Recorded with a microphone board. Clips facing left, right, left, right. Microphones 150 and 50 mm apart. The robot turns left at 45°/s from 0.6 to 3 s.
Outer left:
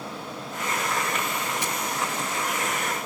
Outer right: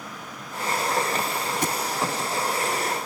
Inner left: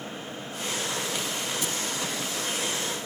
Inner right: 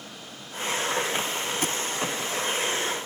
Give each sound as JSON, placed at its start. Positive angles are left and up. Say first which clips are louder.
{"t": 1.6, "sound": "a thud", "louder": "outer right 4 dB, inner right 3 dB", "side_deg": -55}